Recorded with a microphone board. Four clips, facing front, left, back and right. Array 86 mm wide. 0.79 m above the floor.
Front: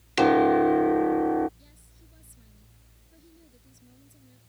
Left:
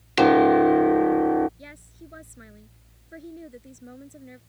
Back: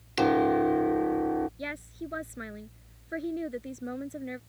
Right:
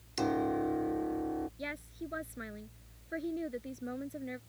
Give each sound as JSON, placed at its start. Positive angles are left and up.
{"t": 0.2, "sound": "a piano", "azimuth_deg": 70}
{"t": 1.6, "sound": "a woman speaking", "azimuth_deg": -165}